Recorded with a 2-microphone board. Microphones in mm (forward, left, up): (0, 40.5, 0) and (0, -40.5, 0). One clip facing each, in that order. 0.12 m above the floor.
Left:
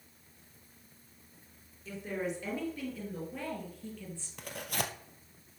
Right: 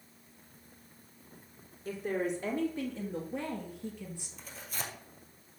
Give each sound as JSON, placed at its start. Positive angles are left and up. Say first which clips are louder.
{"t": 1.9, "sound": "a woman speaking", "louder": "right 4 dB", "side_deg": -40, "distance_m": 2.5}
{"t": 4.4, "sound": "tearing paper", "louder": "left 7 dB", "side_deg": 65, "distance_m": 1.2}